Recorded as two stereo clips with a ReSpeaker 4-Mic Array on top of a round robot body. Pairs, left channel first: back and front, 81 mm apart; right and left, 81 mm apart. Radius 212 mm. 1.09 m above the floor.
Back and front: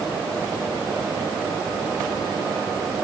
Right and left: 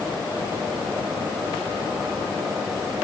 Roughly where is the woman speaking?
I don't hear a woman speaking.